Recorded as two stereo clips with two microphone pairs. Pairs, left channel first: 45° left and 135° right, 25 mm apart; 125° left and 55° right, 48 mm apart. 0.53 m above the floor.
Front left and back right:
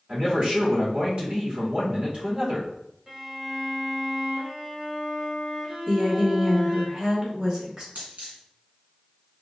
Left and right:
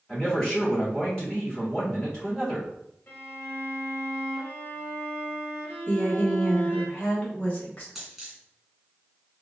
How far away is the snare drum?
No snare drum in this recording.